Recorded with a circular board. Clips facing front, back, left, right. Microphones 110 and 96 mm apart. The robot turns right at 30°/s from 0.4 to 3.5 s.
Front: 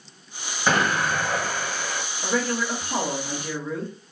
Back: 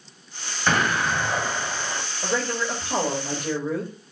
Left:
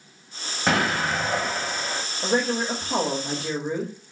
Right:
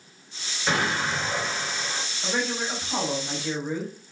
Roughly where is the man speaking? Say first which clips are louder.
Front 1 dB, left 5 dB; left.